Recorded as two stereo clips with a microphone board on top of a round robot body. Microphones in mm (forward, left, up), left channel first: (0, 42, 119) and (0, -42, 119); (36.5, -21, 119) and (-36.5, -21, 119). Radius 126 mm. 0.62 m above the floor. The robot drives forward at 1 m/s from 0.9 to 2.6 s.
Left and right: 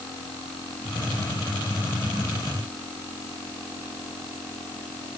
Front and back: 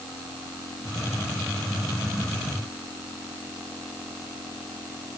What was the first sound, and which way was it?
Only background noise.